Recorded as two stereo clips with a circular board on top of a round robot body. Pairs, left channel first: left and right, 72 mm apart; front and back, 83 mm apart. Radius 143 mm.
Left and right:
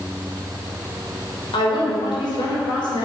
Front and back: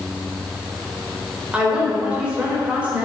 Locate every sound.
1.5 s a woman speaking: 105° left, 3 m